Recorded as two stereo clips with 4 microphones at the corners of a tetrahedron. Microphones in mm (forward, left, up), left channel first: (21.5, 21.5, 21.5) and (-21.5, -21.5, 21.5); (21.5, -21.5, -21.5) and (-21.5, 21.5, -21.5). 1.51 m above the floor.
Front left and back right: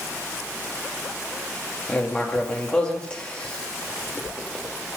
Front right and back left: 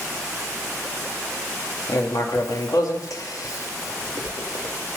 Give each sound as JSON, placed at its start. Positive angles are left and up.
{"t": 1.9, "sound": "writing", "azimuth_deg": -30, "distance_m": 2.5}